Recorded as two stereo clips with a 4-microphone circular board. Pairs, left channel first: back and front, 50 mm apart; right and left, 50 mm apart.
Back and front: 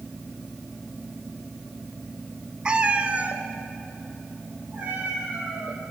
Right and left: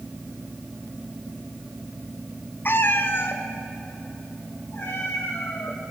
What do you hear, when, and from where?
2.6 s a cat meowing: 65° right, 0.7 m; by 5.8 s 50° right, 3.5 m